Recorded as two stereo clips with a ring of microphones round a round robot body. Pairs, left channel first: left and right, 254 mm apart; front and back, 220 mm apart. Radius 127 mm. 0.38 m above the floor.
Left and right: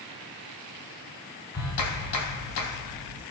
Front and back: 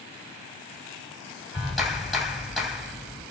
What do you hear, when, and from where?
1.5 s a clap: 90° left, 2.5 m